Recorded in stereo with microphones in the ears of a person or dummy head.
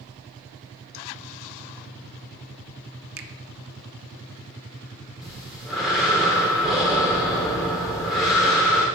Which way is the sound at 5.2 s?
Centre (ahead or behind).